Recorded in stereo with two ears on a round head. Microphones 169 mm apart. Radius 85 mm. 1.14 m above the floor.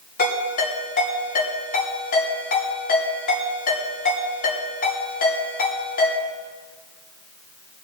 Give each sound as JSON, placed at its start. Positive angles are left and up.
{"t": 0.2, "sound": "a ringtone", "side_deg": 45, "distance_m": 9.0}